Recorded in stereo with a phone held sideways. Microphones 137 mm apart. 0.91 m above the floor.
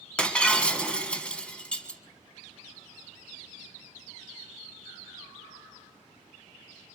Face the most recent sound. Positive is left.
turn(degrees=10)  # may be behind; listen again after turning